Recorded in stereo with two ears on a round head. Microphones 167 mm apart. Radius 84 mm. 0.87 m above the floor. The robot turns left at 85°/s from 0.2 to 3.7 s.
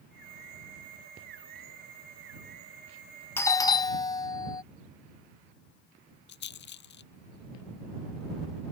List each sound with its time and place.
3.4 s a doorbell: 10° left (ahead or behind); by 4.6 s 20° left (ahead or behind)
6.3 s a rattle: 65° left (ahead or behind)